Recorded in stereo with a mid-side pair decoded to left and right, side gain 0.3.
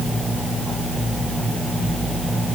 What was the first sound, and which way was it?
Only background noise.